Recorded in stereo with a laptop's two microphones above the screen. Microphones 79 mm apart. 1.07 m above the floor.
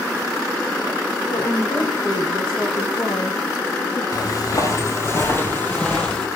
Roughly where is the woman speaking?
Left.